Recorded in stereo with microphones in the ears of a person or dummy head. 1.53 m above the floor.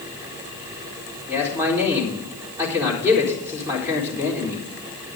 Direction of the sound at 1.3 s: 15° right (ahead or behind).